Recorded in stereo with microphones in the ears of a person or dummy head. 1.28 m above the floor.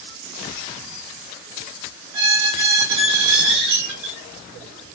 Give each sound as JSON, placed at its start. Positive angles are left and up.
{"t": 2.1, "sound": "a squeak", "side_deg": -60, "distance_m": 1.4}